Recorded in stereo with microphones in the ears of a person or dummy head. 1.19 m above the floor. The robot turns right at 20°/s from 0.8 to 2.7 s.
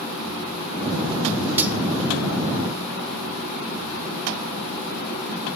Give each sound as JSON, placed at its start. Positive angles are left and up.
{"t": 1.6, "sound": "cutlery clinking", "side_deg": -20, "distance_m": 1.2}